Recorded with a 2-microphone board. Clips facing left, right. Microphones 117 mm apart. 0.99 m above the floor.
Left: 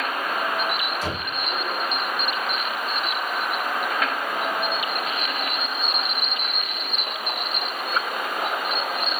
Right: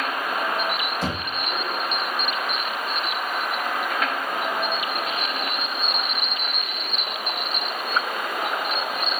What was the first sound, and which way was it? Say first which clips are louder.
Knocking: right 1 dB; 55° right (ahead or behind).